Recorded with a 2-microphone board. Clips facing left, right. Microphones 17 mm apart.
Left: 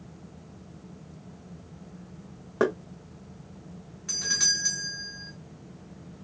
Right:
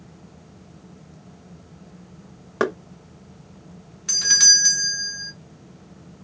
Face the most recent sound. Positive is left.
turn(degrees=-50)  # may be behind; listen again after turning